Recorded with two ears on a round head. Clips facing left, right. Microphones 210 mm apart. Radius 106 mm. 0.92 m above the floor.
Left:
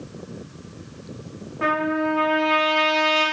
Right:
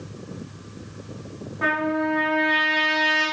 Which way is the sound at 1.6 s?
30° left (ahead or behind).